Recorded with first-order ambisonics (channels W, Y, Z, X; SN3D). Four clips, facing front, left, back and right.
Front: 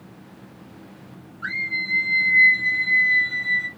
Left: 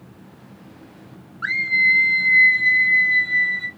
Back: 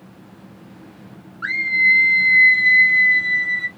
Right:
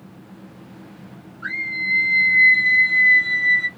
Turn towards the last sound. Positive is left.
turn(degrees=-115)